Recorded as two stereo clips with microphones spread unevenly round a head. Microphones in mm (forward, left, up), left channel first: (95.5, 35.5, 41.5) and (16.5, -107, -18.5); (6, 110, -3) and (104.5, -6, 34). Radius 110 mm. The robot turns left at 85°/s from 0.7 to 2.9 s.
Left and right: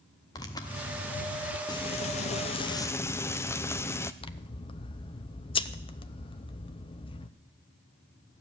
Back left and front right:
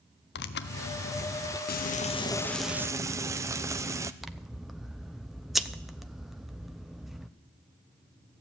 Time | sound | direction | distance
0.3 | tearing paper | 135° left | 0.7 m
1.7 | frying | 110° left | 0.7 m
4.2 | scissors | 30° left | 0.7 m